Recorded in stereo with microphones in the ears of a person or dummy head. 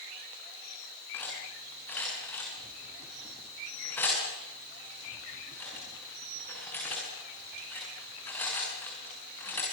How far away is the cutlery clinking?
About 7.5 m.